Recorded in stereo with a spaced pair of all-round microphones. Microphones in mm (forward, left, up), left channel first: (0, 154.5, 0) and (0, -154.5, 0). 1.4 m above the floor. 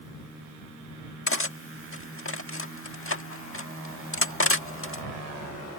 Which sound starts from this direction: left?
Cutlery clinking, at 1.3 s.